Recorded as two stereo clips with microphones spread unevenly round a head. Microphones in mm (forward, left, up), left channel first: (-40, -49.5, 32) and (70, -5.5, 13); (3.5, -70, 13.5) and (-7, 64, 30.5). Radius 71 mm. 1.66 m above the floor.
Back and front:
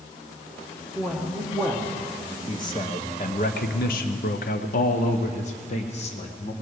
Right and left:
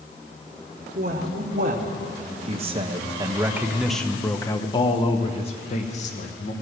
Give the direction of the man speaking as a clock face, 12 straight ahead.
8 o'clock.